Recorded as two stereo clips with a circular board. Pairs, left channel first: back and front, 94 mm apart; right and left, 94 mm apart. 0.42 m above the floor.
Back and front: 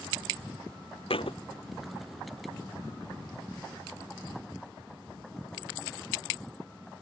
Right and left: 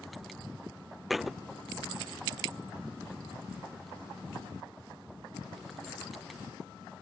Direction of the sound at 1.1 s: Straight behind.